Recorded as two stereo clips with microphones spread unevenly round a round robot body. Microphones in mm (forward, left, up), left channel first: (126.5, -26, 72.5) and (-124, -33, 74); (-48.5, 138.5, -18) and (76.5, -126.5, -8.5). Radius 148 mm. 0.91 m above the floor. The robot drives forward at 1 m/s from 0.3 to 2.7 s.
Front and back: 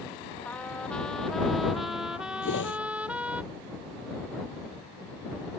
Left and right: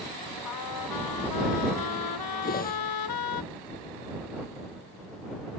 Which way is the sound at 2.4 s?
50° left.